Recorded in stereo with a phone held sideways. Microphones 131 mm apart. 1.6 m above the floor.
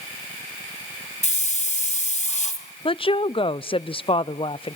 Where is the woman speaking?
45° left (ahead or behind), 0.5 m.